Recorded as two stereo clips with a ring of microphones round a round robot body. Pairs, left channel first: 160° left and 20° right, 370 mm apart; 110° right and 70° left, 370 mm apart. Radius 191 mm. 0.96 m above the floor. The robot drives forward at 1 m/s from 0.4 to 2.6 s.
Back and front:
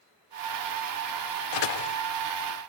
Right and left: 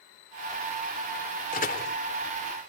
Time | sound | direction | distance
1.5 | a door slam | straight behind | ?